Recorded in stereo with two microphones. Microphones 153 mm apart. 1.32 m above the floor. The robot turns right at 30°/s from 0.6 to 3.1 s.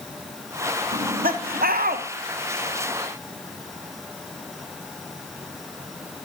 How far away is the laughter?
About 0.7 m.